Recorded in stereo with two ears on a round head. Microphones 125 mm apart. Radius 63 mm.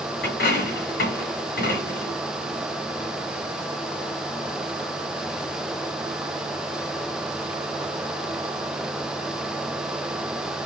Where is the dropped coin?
80° left, 2 m.